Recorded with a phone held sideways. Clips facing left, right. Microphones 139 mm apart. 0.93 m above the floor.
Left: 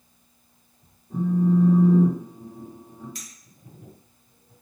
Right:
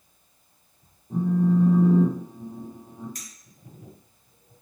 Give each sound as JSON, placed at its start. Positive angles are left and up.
{"t": 1.1, "sound": "a phone buzzing", "side_deg": -30, "distance_m": 1.1}
{"t": 3.1, "sound": "a clink", "side_deg": -45, "distance_m": 0.9}